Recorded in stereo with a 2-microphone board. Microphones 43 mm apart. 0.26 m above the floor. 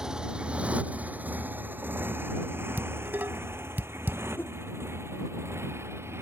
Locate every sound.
0.0 s a motorcycle: 15° right (ahead or behind); by 6.2 s 80° right
2.8 s dishes clattering: 55° right (ahead or behind)
4.4 s a whoosh: 50° left (ahead or behind)